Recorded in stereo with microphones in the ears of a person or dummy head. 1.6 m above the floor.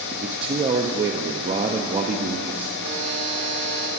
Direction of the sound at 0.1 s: 25° right (ahead or behind).